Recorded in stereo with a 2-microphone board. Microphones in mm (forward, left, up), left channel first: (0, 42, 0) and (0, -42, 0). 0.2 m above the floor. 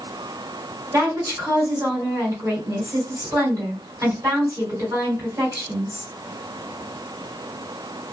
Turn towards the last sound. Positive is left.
turn(degrees=-40)  # may be behind; listen again after turning